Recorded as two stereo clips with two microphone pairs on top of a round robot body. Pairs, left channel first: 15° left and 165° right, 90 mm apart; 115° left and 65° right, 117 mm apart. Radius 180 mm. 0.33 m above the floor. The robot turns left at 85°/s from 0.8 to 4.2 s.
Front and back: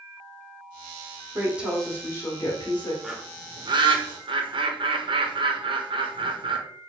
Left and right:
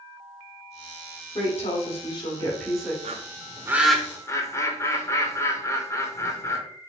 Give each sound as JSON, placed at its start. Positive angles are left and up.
{"t": 1.4, "sound": "a woman speaking", "azimuth_deg": 140, "distance_m": 1.7}
{"t": 3.0, "sound": "a bird", "azimuth_deg": -80, "distance_m": 0.9}